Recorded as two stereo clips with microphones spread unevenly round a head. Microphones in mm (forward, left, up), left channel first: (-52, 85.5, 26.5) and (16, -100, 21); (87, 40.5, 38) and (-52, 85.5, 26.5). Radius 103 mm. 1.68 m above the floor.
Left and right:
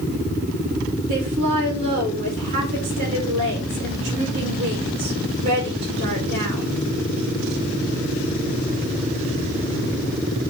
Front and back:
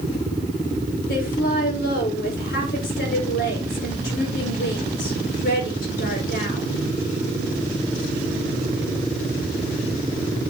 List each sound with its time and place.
1.1 s a woman speaking: 25° right, 4.5 m